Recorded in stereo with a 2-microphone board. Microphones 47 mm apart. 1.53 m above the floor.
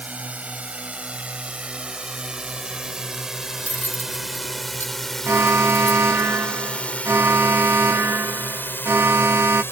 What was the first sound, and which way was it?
A drone, 30° right (ahead or behind).